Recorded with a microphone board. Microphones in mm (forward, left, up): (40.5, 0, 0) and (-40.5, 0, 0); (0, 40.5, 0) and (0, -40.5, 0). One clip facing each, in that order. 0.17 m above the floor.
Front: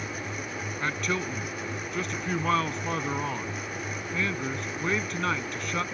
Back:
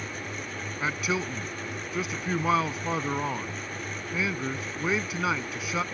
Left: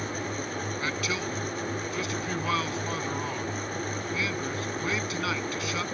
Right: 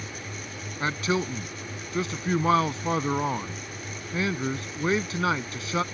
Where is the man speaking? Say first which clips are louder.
Back 1 dB, right 8 dB; 100° right.